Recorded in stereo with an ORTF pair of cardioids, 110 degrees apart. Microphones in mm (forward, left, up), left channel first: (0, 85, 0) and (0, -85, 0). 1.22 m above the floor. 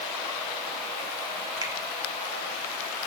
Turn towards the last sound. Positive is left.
turn(degrees=-25)